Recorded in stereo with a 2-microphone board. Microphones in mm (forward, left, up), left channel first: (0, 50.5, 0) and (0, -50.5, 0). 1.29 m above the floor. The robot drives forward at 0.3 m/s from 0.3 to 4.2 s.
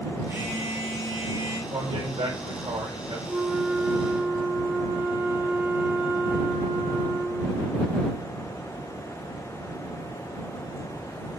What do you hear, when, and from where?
0.3 s a phone buzzing: 35° right (ahead or behind), 2.5 m; by 1.6 s 40° right (ahead or behind), 2 m
1.7 s a man speaking: 85° right, 5 m
3.3 s a flute: 10° right (ahead or behind), 0.7 m; by 7.9 s 15° right (ahead or behind), 0.7 m